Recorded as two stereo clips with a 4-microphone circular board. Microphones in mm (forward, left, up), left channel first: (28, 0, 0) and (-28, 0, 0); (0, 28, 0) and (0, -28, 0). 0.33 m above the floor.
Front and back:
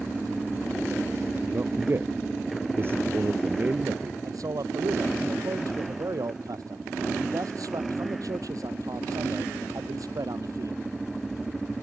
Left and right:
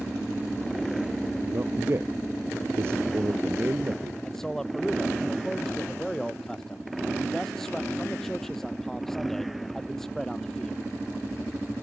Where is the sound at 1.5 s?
130° right.